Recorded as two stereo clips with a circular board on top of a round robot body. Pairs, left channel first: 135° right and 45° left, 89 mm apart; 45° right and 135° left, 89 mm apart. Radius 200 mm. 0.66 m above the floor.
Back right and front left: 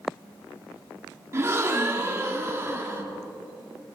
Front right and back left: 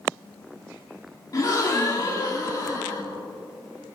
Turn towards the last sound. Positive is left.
turn(degrees=-5)